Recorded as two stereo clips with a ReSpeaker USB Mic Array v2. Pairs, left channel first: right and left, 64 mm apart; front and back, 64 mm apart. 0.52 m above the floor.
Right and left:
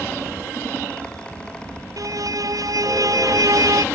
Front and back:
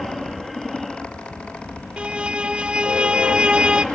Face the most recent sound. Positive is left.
turn(degrees=105)